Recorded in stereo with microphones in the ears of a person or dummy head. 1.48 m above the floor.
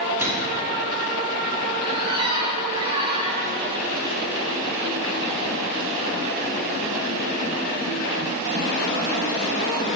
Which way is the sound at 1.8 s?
30° right (ahead or behind).